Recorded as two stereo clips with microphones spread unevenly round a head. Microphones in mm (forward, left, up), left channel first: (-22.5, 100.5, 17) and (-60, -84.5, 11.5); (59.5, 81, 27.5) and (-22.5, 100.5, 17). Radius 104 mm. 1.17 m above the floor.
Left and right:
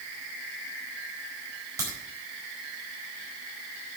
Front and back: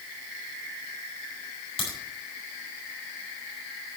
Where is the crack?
25° right, 4.5 m.